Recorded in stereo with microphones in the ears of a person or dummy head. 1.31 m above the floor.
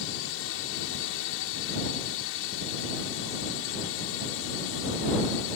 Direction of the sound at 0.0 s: 65° left (ahead or behind).